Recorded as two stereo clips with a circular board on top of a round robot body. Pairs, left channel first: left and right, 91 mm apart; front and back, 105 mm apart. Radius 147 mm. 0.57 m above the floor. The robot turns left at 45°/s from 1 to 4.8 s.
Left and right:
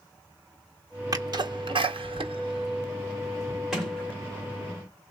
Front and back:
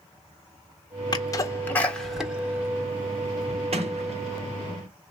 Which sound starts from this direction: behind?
A sliding door, at 3.7 s.